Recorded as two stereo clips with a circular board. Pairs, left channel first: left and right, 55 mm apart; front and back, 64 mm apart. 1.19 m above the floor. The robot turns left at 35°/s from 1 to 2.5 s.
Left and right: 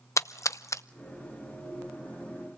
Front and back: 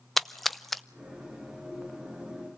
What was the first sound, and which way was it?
A splash, 90° left.